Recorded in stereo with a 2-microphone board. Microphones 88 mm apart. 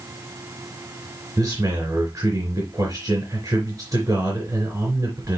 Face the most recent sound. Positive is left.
turn(degrees=-35)  # may be behind; listen again after turning